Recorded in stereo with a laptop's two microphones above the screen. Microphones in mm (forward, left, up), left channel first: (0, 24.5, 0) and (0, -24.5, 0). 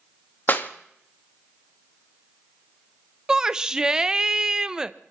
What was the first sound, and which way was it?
A clap, 45° left (ahead or behind).